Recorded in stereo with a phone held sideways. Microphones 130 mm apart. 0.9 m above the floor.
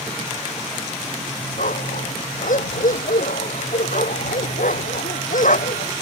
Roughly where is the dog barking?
Left.